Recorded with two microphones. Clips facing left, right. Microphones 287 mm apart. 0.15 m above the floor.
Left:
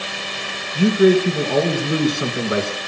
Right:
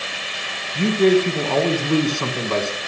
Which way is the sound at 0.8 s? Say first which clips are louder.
Left 2 dB; 10° left (ahead or behind).